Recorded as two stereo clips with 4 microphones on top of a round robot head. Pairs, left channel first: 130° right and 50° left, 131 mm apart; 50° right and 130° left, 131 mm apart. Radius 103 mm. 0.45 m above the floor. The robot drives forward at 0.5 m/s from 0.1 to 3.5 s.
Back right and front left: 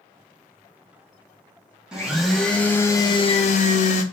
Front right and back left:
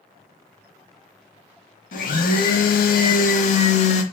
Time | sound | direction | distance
1.9 | a blender | 35° right | 0.9 m